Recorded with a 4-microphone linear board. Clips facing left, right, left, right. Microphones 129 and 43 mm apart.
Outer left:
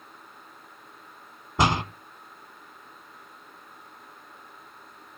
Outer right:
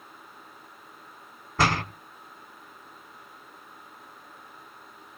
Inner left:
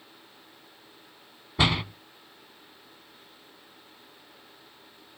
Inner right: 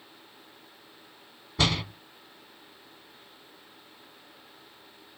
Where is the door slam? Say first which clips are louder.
Outer left 2 dB, inner left 2 dB; 20° left (ahead or behind), 0.8 m.